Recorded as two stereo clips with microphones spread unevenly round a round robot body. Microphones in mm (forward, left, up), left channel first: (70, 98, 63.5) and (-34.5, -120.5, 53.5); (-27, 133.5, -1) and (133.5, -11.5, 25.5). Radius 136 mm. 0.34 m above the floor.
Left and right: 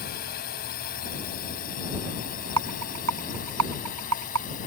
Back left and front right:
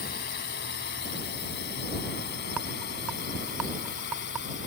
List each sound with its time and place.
0.0 s a drone: 110° left; by 4.7 s 120° left
2.6 s a rattle: 130° right